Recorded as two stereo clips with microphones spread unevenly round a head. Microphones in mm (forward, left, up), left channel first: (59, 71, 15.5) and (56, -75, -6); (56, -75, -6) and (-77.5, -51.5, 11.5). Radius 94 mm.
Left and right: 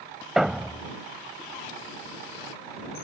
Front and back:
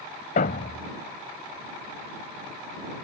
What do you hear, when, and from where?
0.4 s a thud: 5° left